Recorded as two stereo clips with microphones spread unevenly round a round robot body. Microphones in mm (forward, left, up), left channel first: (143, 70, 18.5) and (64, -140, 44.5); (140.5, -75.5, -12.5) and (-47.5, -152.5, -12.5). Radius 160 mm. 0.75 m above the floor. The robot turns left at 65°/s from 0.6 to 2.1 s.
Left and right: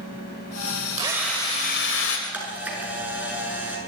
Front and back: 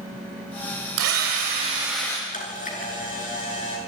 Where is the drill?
Straight behind, 3 m; by 2.2 s 105° left, 3 m.